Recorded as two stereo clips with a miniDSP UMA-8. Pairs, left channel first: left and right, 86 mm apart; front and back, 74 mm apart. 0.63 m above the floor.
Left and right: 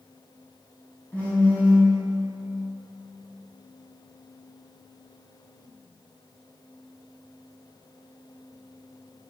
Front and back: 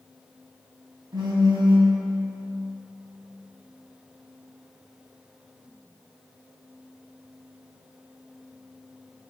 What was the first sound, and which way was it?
A phone buzzing, 165° left.